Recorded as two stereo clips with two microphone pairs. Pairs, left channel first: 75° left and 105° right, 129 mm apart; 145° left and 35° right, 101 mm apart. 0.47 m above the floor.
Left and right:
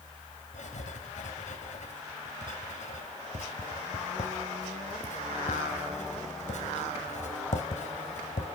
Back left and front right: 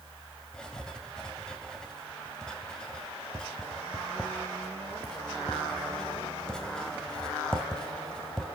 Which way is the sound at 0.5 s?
60° left.